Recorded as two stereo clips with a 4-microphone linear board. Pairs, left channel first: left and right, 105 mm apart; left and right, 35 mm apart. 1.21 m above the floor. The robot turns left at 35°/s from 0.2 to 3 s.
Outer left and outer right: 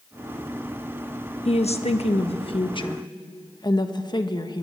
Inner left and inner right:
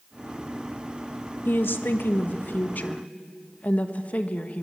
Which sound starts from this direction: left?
A woman speaking, at 1.4 s.